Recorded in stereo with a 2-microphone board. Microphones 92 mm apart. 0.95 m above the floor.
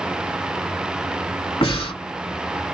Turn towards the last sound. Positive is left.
turn(degrees=65)  # may be behind; listen again after turning